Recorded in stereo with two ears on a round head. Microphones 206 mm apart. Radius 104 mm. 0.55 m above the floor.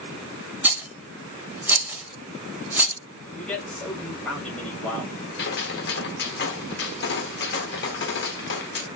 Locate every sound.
0.6 s a rattle: 10° right (ahead or behind), 0.8 m
3.4 s a man speaking: 5° left (ahead or behind), 2 m
5.4 s a gunshot: 45° left (ahead or behind), 1.1 m